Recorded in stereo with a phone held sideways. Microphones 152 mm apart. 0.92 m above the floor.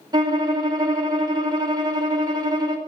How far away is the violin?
About 1.4 m.